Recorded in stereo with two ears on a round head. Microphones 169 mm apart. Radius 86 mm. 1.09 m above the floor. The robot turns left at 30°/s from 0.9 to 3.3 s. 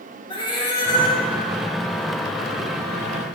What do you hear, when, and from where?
0.3 s a cat meowing: 25° left (ahead or behind), 0.9 m; by 1.2 s 30° left (ahead or behind), 0.9 m